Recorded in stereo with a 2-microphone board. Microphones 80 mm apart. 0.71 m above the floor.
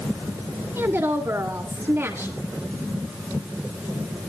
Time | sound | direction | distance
0.8 | a woman speaking | 30° right (ahead or behind) | 1.7 m